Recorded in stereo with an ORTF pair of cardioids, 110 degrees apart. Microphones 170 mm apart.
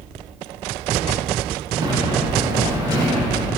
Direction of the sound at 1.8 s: 25° right.